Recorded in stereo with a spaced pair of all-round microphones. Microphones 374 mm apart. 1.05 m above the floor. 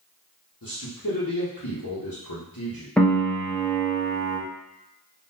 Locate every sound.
0.6 s a man speaking: 60° left (ahead or behind), 1.1 m
3.0 s a piano: 5° left (ahead or behind), 1.0 m